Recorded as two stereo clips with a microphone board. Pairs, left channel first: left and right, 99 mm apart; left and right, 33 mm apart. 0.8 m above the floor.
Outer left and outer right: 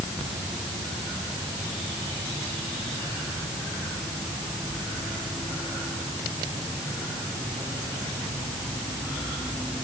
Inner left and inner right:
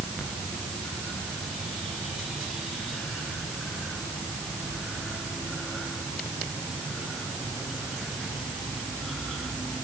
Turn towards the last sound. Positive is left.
No sound to turn to.